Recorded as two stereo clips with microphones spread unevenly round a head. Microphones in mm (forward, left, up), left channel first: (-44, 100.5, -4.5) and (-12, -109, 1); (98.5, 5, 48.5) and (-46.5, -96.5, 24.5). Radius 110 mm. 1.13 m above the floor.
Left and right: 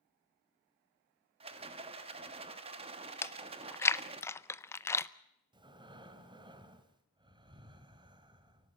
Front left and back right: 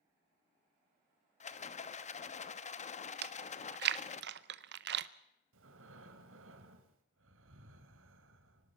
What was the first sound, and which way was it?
A rattle, 15° right.